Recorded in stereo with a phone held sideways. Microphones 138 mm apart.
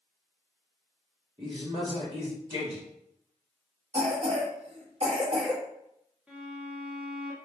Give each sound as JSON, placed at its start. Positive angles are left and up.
{"t": 1.4, "sound": "a man speaking", "side_deg": -35, "distance_m": 1.5}
{"t": 3.9, "sound": "a cough", "side_deg": -50, "distance_m": 1.5}
{"t": 6.3, "sound": "a violin", "side_deg": -10, "distance_m": 1.2}